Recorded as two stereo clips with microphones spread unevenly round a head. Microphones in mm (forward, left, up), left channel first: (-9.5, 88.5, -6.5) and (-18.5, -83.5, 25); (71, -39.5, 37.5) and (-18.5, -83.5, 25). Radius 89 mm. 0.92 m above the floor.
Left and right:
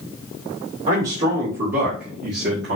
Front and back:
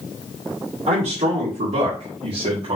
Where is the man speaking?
140° right, 2.5 m; by 2.8 s 125° right, 1.4 m.